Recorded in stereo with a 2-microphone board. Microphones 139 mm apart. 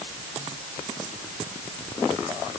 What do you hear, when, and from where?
Only background noise.